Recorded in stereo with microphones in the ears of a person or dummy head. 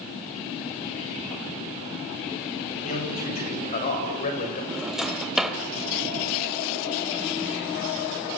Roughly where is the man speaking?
Left.